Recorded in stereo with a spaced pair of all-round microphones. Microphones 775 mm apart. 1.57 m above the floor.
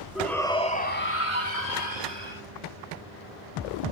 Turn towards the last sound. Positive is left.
turn(degrees=35)  # may be behind; listen again after turning